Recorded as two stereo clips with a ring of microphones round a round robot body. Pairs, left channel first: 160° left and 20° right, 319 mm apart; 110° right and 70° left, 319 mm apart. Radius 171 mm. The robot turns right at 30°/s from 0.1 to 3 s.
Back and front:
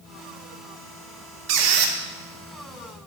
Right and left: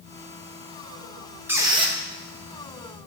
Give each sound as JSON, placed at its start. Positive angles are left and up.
{"t": 1.5, "sound": "a squeak", "azimuth_deg": -15, "distance_m": 0.9}